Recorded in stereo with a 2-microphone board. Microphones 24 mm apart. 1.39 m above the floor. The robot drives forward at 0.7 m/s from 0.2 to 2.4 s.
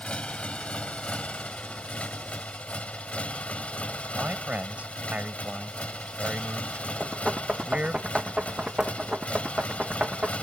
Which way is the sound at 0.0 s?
60° left (ahead or behind).